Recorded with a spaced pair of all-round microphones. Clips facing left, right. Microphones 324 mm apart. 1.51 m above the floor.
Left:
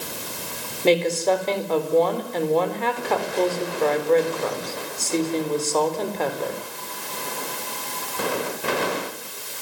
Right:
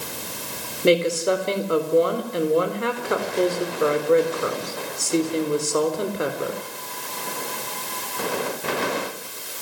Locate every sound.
0.8 s a woman speaking: 15° right (ahead or behind), 4 m